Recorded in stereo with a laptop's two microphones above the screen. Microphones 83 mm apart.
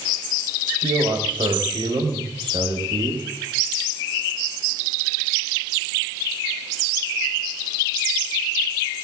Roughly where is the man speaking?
Right.